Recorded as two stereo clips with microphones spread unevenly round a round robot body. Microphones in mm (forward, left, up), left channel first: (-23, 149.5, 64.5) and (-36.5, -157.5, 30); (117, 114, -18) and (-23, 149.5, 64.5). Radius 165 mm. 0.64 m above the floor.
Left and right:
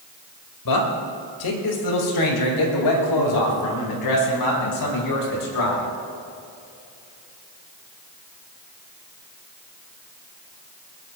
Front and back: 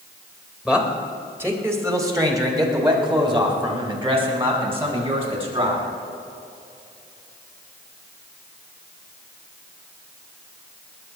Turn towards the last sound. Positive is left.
turn(degrees=110)